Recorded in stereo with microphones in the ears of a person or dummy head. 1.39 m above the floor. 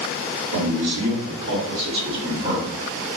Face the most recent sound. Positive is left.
turn(degrees=-25)  # may be behind; listen again after turning